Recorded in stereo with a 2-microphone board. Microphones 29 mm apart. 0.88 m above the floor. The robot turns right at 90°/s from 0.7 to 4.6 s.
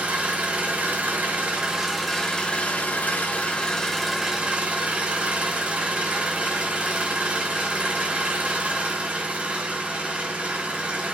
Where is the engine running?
120° right, 1.3 m; by 11.1 s 130° right, 1.3 m.